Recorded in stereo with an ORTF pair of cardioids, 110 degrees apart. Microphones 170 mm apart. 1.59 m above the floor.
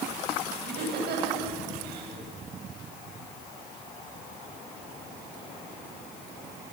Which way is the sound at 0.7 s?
70° right.